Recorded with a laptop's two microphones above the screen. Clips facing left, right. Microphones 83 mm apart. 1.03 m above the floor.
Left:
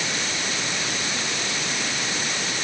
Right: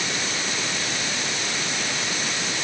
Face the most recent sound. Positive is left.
No sound to turn to.